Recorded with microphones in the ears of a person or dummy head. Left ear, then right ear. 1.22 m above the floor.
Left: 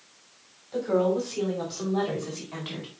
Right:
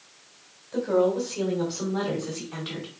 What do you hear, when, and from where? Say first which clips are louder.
0.7 s a woman speaking: right 1 dB; 15° left (ahead or behind), 5.5 m